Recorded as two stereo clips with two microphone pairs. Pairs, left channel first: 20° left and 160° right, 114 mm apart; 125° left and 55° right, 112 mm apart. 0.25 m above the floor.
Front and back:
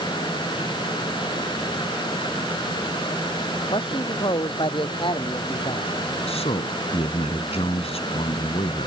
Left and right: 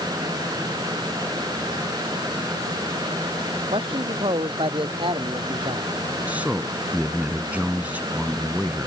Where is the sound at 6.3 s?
20° left.